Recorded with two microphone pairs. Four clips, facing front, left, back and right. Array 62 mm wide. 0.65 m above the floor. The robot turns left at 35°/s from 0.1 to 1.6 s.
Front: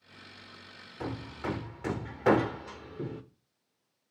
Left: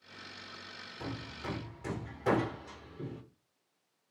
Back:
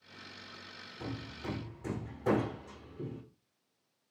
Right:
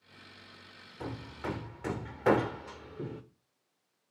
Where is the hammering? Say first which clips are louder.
Right 3 dB, front 6 dB; 25° right, 1.4 m; by 3.2 s 45° right, 1.4 m.